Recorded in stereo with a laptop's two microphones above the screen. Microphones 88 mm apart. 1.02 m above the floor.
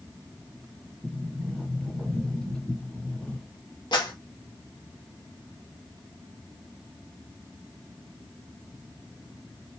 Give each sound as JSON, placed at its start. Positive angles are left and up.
{"t": 1.0, "sound": "a sliding door", "side_deg": 10, "distance_m": 1.7}
{"t": 3.9, "sound": "a clap", "side_deg": 60, "distance_m": 1.5}